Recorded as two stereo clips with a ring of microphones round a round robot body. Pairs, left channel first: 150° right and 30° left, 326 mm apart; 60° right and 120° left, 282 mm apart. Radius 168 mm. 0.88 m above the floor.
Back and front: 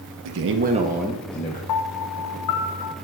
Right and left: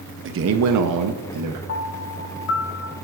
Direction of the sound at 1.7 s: 115° right.